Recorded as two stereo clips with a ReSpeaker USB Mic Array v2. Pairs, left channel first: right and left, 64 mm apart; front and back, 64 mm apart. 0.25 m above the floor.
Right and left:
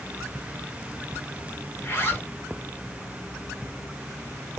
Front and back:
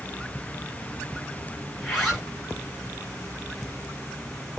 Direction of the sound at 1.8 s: 90° right.